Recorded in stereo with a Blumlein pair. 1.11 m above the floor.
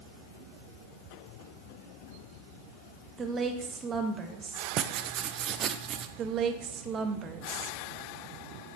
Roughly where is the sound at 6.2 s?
Ahead right.